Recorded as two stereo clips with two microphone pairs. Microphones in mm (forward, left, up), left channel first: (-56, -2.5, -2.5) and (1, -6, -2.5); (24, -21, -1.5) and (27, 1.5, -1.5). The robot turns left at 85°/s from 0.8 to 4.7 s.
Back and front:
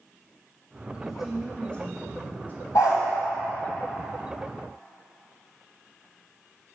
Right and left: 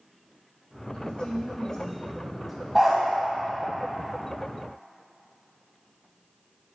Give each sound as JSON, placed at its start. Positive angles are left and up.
{"t": 0.9, "sound": "a woman speaking", "azimuth_deg": -65, "distance_m": 1.2}
{"t": 2.8, "sound": "a dog barking", "azimuth_deg": 170, "distance_m": 2.5}